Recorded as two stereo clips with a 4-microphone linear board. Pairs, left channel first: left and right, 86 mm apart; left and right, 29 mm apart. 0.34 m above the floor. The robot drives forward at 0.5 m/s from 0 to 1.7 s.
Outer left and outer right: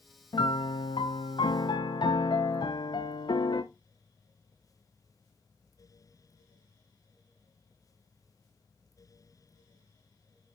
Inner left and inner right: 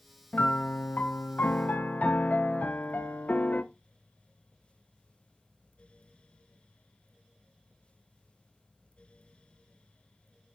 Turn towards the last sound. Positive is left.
turn(degrees=65)  # may be behind; listen again after turning